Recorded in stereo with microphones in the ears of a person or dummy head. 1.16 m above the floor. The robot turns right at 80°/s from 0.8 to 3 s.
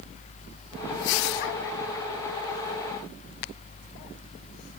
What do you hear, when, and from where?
Only background noise.